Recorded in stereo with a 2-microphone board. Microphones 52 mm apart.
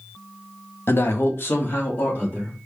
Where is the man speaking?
50° left (ahead or behind), 0.8 m; by 2.6 s 35° left (ahead or behind), 1.5 m.